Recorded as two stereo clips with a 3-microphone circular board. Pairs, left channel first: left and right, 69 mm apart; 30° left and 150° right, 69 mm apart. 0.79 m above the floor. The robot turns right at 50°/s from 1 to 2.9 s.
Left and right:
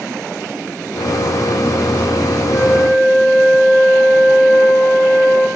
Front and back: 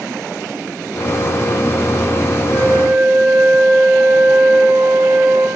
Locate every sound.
2.5 s a flute: 120° left, 2.5 m; by 5.5 s 135° left, 2.5 m